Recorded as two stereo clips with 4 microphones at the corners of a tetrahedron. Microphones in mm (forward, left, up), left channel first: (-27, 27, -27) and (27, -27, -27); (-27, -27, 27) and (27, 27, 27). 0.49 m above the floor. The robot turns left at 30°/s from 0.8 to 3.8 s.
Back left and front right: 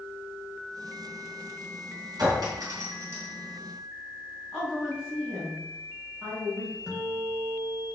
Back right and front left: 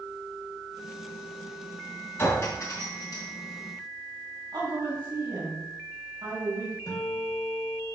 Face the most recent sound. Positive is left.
turn(degrees=-125)